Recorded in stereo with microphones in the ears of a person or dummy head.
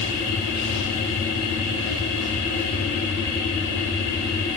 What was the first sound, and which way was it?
A machine running, 75° left (ahead or behind).